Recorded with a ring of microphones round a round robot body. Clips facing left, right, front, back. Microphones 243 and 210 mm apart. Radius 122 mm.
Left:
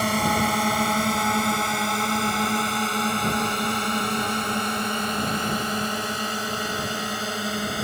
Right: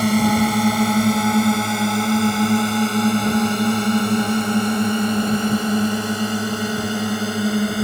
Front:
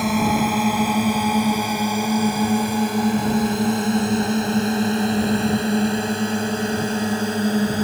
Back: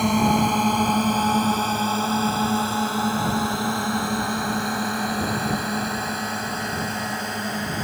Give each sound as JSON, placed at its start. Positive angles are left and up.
{"t": 0.0, "sound": "a drone", "azimuth_deg": -85}